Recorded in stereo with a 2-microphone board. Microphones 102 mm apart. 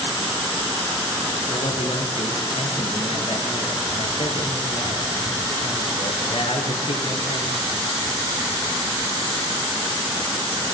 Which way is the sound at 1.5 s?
70° left (ahead or behind).